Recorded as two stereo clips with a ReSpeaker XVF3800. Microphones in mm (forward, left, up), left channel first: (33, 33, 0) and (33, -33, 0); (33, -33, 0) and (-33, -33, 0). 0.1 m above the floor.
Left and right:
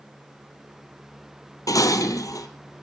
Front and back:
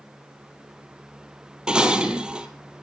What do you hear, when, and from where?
1.7 s dishes clattering: 105° left, 1.7 m